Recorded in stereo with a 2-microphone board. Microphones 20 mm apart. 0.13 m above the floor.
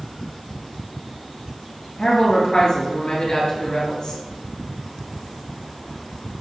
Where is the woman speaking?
40° left (ahead or behind), 1.8 m.